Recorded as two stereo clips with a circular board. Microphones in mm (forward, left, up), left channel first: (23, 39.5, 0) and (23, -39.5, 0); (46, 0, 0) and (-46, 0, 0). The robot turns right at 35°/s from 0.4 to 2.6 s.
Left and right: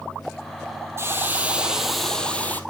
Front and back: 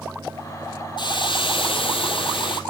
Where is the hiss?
35° right, 1.5 m; by 2.6 s 25° left, 1.5 m.